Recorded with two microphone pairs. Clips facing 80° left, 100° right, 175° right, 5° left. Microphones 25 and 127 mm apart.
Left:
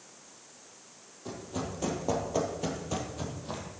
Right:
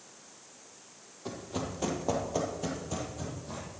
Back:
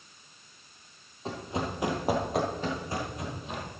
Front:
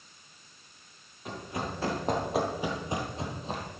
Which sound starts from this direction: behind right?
Running footsteps, at 1.2 s.